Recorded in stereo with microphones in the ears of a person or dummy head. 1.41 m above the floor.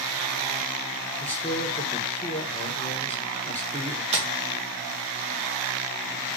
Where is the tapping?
35° right (ahead or behind), 1.7 m.